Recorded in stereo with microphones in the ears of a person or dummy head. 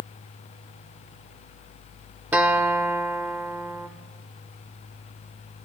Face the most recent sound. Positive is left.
turn(degrees=-10)  # may be behind; listen again after turning